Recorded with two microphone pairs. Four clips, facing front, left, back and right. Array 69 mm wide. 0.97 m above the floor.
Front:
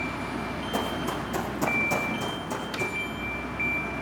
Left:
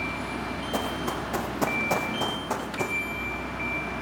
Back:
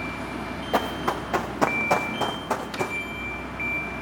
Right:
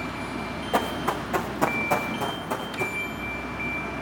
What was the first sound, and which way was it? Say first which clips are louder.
Running footsteps: right 5 dB, back 6 dB; 155° right.